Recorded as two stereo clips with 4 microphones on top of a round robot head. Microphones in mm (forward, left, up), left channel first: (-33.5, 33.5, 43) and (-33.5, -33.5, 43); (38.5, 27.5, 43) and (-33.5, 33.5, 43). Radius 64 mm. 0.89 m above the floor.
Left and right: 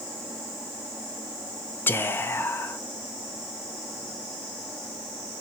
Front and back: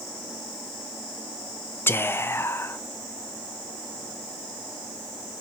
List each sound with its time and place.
1.9 s whispering: 45° left, 0.5 m